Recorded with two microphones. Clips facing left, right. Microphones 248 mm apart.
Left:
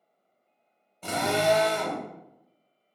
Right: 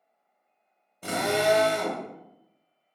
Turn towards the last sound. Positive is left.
turn(degrees=-10)  # may be behind; listen again after turning